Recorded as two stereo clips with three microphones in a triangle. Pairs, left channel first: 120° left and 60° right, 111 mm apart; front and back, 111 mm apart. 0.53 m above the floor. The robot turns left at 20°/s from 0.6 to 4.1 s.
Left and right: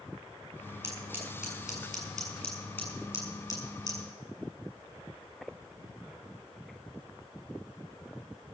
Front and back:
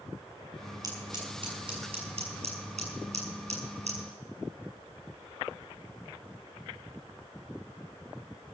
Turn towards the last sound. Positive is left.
turn(degrees=170)